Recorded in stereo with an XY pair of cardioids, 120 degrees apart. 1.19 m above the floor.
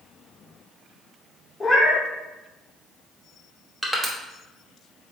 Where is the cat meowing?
20° left, 1.2 m.